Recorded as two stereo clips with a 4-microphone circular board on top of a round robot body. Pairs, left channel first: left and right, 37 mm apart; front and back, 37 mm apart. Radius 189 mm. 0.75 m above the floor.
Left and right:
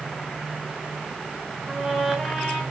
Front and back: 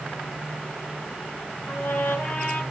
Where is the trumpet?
Straight ahead, 7.5 m.